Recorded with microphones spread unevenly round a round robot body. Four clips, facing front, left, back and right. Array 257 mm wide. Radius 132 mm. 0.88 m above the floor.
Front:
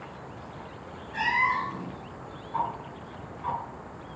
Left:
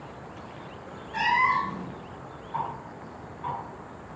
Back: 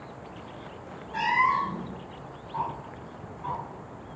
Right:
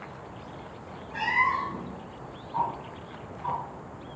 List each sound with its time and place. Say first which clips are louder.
1.1 s a cat meowing: left 3 dB, back 3 dB; 115° left, 2.5 m
2.5 s ticking: right 3 dB, front 2 dB; 70° left, 5.5 m